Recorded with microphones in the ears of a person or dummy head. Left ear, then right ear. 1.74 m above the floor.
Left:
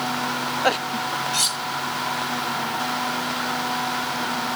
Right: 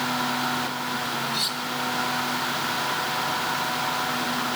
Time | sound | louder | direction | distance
1.3 | cutlery clinking | left 5 dB | 50° left (ahead or behind) | 1.4 m